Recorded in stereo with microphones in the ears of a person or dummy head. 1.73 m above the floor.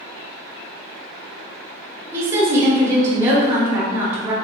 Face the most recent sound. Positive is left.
turn(degrees=-10)  # may be behind; listen again after turning